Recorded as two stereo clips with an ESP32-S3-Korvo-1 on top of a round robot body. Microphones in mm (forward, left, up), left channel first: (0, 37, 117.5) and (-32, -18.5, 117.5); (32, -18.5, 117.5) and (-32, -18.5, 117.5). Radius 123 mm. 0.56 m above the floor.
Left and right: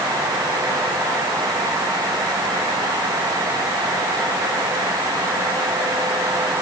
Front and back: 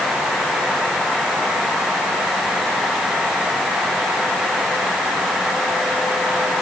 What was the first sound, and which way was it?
Only background noise.